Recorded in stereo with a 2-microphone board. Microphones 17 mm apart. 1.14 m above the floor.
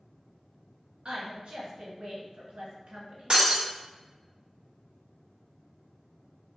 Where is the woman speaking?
60° right (ahead or behind), 1.5 m.